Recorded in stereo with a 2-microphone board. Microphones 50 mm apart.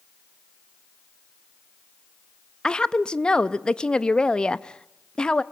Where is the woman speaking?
15° left (ahead or behind), 0.6 m.